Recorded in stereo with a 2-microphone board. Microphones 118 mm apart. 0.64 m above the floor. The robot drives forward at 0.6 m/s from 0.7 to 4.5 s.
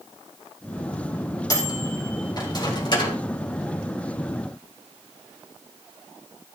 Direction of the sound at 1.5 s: 30° left (ahead or behind).